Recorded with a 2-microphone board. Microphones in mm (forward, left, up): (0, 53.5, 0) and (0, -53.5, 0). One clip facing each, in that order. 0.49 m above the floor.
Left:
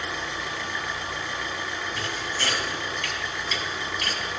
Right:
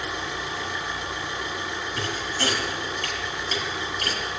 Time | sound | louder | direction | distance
0.0 | an engine running | right 1 dB | 20° right (ahead or behind) | 3 m
2.0 | a thud | right 5 dB | 40° right (ahead or behind) | 2.5 m